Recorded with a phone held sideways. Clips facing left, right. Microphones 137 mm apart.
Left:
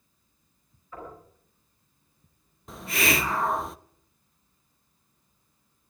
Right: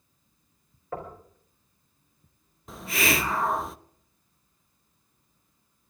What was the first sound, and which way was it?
Knocking, 80° right.